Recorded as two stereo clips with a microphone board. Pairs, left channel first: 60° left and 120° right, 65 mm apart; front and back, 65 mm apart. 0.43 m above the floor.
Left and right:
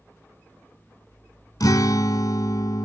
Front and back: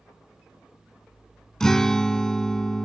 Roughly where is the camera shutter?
I don't hear a camera shutter.